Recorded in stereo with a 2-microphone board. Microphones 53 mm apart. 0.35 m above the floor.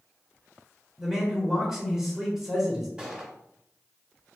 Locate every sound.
1.0 s a man speaking: 10° right (ahead or behind), 1.0 m
3.0 s a gunshot: 15° right (ahead or behind), 1.1 m